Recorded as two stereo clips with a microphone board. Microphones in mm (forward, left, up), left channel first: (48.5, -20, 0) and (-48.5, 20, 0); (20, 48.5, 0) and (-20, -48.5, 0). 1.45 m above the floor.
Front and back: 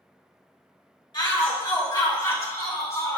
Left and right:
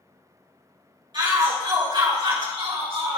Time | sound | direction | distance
1.1 | a shout | 70° right | 3 m